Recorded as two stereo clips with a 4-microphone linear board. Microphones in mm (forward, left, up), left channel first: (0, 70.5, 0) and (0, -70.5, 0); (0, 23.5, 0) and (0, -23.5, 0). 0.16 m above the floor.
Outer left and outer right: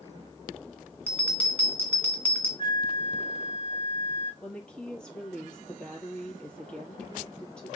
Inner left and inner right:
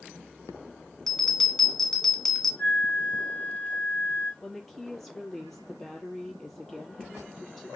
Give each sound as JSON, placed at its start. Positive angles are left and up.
{"t": 1.1, "sound": "a bell", "side_deg": 10, "distance_m": 1.8}
{"t": 2.6, "sound": "a flute", "side_deg": 35, "distance_m": 4.0}
{"t": 4.4, "sound": "a woman speaking", "side_deg": 5, "distance_m": 4.0}